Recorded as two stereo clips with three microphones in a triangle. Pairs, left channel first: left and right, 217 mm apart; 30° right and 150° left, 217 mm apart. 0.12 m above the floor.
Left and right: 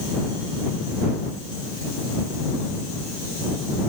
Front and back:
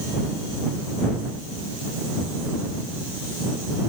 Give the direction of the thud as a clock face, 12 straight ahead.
I don't hear a thud.